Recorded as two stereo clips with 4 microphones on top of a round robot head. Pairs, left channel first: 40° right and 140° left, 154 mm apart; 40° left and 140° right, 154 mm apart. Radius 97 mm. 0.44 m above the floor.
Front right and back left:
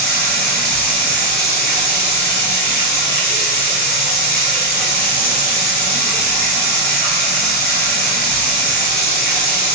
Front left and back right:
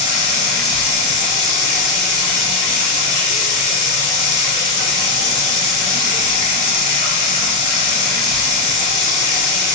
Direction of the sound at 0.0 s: 5° right.